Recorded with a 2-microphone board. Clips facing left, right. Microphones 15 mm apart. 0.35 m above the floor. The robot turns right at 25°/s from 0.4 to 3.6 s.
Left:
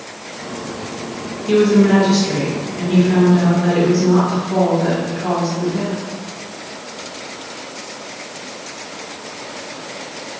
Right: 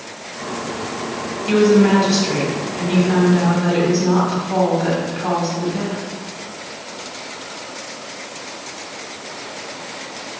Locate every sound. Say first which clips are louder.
1.5 s a woman speaking: left 1 dB; 80° right, 1.8 m; by 6.0 s 25° right, 1.8 m